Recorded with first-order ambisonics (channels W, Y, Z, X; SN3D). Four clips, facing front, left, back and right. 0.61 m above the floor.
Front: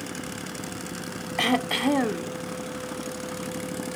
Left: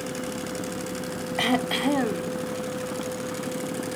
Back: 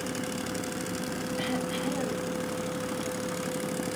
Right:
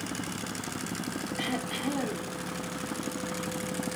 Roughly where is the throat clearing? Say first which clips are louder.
Left 10 dB, front 10 dB; ahead left.